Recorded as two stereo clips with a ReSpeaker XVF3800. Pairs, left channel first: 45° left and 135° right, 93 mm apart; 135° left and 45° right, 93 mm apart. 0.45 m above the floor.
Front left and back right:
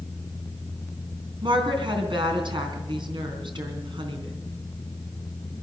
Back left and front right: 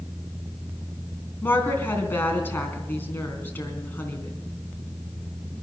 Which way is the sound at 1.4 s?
160° right.